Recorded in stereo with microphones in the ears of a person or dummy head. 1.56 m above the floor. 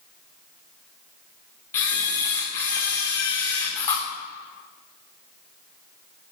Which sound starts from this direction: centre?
A camera shutter, at 1.7 s.